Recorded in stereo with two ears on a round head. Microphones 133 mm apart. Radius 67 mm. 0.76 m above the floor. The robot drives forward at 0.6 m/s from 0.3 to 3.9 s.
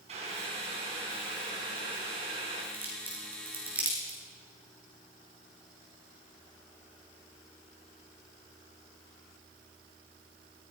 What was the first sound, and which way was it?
Boiling, 45° right (ahead or behind).